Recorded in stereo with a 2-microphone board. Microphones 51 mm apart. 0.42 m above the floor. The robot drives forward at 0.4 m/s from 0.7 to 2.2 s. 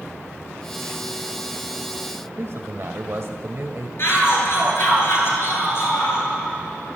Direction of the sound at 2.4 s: 60° right (ahead or behind).